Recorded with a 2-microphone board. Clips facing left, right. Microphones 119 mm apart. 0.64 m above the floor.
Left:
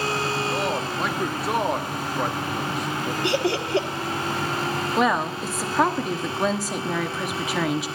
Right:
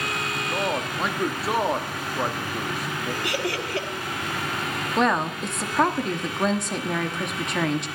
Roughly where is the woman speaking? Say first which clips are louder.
Right 1 dB; centre.